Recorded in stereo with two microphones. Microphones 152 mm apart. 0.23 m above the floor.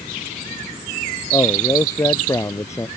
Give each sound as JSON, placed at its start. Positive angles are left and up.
{"t": 1.3, "sound": "a man speaking", "side_deg": 20}